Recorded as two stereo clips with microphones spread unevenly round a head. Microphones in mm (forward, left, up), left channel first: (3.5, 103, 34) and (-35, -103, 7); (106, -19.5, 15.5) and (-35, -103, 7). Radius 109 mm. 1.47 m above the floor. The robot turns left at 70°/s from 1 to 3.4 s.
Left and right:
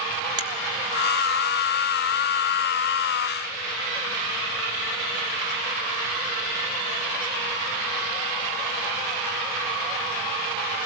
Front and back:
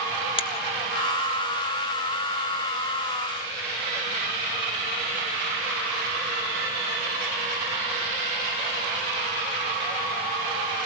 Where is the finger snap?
30° right, 1.7 m.